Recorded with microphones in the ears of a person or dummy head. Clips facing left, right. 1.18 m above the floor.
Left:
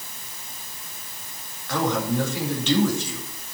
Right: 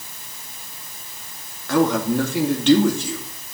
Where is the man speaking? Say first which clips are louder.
Right 6 dB; 45° right (ahead or behind), 2.5 m.